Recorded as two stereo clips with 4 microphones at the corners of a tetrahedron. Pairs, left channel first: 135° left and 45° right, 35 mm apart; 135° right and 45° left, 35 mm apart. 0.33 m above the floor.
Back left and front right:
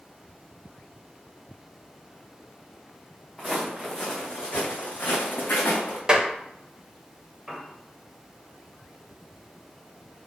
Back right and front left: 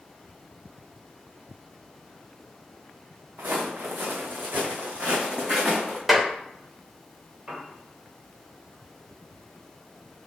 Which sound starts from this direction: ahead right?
A clap, at 6.1 s.